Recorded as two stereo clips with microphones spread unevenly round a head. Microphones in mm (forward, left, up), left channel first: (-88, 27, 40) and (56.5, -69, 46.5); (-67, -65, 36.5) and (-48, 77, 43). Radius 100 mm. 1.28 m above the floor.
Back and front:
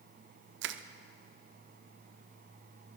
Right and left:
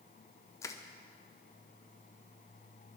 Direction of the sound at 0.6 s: 25° right.